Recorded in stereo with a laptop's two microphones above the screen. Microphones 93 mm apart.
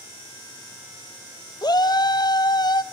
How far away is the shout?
About 0.6 m.